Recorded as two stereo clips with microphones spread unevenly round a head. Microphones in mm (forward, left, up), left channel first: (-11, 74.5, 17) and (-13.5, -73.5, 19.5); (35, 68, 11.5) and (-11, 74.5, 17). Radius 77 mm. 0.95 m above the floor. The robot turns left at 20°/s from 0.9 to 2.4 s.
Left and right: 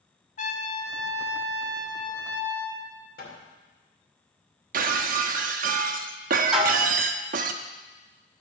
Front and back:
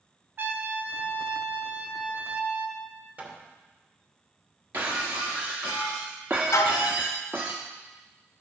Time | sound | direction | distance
0.4 | a trumpet | 130° left | 1.6 m
3.2 | hammering | 115° left | 2.5 m
4.7 | breaking glass | 120° right | 0.6 m
6.5 | dishes clattering | 5° right | 1.1 m